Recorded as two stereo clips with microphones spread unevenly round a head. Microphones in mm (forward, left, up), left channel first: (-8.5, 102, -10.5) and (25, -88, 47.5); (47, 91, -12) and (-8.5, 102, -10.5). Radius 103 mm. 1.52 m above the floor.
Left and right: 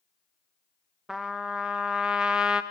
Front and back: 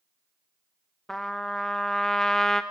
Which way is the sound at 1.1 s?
85° right.